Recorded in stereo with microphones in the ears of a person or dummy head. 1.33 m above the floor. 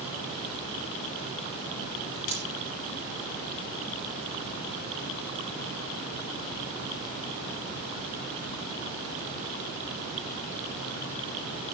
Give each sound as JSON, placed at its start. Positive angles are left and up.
{"t": 2.3, "sound": "a dropped coin", "side_deg": 70, "distance_m": 7.5}